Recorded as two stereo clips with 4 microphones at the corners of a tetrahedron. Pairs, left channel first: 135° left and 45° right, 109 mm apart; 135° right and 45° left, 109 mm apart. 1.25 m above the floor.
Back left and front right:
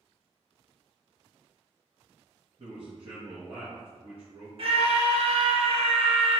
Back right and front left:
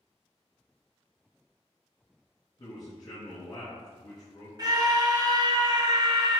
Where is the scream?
10° right, 0.8 m.